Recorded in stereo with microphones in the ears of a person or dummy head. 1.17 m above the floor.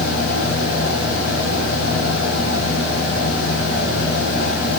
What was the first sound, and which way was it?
A fan, 65° left (ahead or behind).